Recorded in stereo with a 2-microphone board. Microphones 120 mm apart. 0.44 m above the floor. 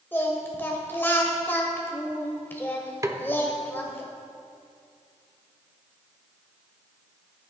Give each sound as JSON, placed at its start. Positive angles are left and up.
{"t": 0.1, "sound": "singing", "side_deg": 15, "distance_m": 1.5}
{"t": 3.0, "sound": "a snare drum", "side_deg": -25, "distance_m": 0.9}